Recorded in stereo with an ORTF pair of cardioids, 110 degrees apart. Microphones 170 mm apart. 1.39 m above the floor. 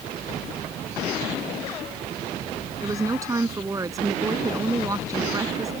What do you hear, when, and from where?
2.8 s a woman speaking: 20° right